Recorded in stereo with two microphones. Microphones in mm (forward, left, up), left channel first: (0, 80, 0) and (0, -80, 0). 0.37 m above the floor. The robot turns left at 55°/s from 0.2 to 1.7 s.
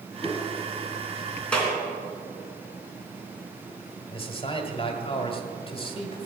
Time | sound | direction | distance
0.2 | a whoosh | 20° left (ahead or behind) | 1.5 m
1.5 | a clap | 5° left (ahead or behind) | 3.5 m
4.1 | a man speaking | 35° left (ahead or behind) | 1.6 m